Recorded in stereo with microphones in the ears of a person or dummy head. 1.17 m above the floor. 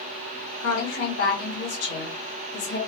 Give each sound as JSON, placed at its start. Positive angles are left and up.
{"t": 0.6, "sound": "a woman speaking", "side_deg": 80, "distance_m": 2.5}